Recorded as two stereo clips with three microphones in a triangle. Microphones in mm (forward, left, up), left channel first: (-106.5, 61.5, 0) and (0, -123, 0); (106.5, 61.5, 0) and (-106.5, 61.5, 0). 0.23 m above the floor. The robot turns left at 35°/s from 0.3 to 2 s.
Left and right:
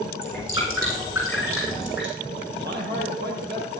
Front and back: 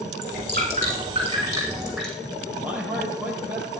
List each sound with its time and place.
0.2 s dripping: 150° left, 8.5 m; by 2.1 s 90° left, 8.5 m
2.6 s a man speaking: 100° right, 5 m